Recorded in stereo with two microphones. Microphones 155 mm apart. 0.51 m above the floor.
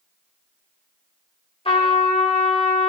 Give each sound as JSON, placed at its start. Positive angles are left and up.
{"t": 1.6, "sound": "a trumpet", "side_deg": 35, "distance_m": 1.9}